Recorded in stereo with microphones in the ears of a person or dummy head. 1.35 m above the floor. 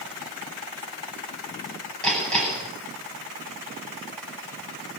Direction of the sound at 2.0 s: 5° left (ahead or behind).